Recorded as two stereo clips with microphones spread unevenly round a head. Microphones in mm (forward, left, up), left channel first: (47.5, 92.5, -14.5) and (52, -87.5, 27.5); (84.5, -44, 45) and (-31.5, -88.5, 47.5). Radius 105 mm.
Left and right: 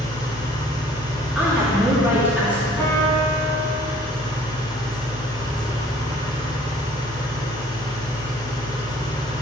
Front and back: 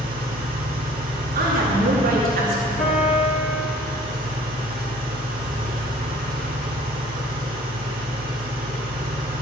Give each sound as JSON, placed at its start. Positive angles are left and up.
{"t": 0.0, "sound": "an engine running", "azimuth_deg": 170, "distance_m": 1.5}
{"t": 1.4, "sound": "a woman speaking", "azimuth_deg": -175, "distance_m": 2.5}
{"t": 2.8, "sound": "a piano", "azimuth_deg": 15, "distance_m": 4.5}